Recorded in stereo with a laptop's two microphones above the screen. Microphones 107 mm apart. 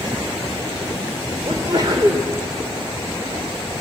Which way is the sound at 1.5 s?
40° right (ahead or behind).